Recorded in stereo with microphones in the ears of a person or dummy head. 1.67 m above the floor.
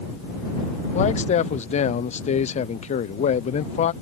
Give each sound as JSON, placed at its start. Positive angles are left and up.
{"t": 0.9, "sound": "a man speaking", "side_deg": 40}